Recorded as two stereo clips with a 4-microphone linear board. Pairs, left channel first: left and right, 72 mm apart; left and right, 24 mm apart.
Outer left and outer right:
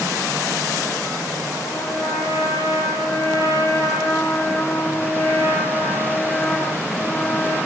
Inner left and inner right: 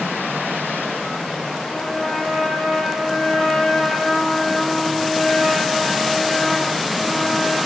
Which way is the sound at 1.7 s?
60° left (ahead or behind).